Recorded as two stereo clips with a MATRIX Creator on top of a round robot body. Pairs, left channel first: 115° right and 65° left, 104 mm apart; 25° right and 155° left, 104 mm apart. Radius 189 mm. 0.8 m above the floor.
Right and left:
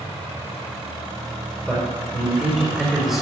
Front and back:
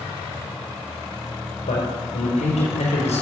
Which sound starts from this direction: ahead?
A man speaking, at 1.7 s.